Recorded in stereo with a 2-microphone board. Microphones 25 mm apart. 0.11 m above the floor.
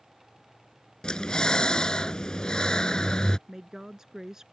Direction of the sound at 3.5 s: 20° right (ahead or behind).